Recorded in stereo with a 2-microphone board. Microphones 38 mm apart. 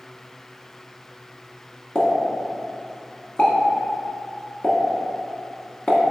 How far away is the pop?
About 0.6 m.